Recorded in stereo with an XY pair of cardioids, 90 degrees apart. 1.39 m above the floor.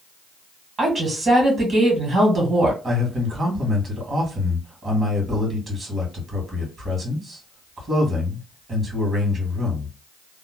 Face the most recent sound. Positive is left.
turn(degrees=-40)